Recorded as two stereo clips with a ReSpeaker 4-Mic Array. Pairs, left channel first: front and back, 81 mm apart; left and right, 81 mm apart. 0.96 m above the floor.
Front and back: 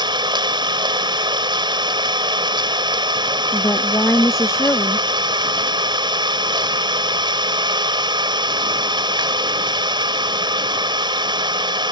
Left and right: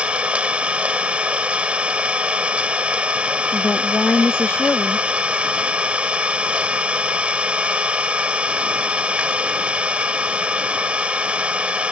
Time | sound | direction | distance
0.0 | an engine running | 165° right | ?
3.5 | a woman speaking | 35° left | ?